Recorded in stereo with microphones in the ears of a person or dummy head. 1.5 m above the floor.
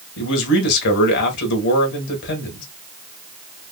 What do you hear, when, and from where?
0.2 s a man speaking: 60° left (ahead or behind), 1.6 m